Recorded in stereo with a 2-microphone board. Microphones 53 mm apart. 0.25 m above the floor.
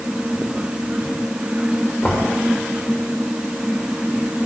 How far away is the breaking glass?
No breaking glass in this recording.